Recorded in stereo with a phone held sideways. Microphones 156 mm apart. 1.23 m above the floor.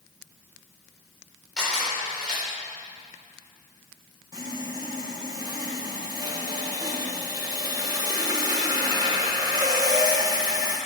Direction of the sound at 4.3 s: 25° right (ahead or behind).